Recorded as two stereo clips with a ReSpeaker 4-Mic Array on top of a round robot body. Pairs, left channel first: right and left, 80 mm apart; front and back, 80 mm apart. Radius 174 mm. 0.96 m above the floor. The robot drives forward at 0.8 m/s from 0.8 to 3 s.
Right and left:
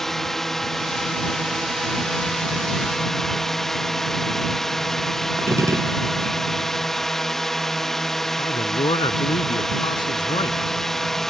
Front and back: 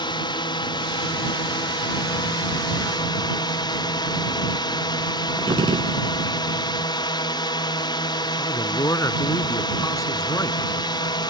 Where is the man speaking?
55° right.